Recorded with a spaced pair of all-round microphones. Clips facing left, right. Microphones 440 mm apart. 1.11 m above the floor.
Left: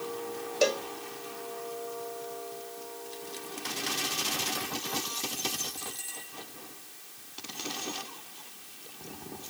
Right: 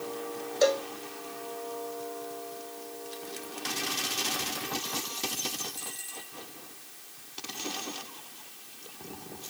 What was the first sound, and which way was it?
A cowbell, 45° left (ahead or behind).